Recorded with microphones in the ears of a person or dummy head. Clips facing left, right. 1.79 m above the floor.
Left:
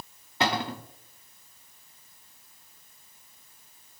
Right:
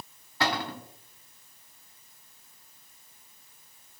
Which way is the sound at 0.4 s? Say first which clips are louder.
Left 2 dB; 25° left (ahead or behind).